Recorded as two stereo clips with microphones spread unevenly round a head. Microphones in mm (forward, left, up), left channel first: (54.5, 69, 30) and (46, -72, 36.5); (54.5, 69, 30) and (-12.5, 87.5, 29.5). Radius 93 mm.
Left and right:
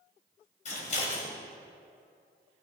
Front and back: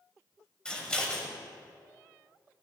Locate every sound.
0.7 s scissors: 60° left, 2.5 m